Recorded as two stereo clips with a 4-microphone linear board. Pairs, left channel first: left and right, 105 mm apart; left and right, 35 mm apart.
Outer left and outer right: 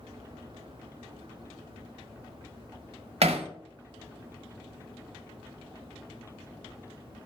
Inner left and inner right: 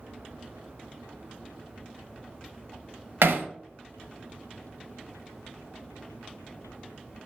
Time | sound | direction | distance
3.2 | hammering | 80° right | 0.6 m